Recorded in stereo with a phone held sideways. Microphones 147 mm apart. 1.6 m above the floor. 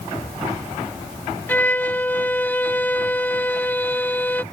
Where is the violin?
10° left (ahead or behind).